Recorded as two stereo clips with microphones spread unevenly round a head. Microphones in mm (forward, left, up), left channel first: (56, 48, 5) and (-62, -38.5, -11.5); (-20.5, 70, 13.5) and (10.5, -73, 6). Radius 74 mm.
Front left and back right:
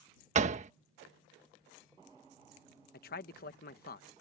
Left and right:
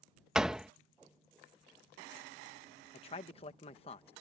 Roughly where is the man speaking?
Ahead left.